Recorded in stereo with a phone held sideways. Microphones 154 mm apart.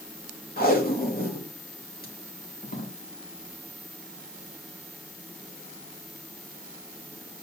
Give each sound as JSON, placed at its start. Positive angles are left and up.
{"t": 0.6, "sound": "tape being pulled", "side_deg": 80, "distance_m": 2.5}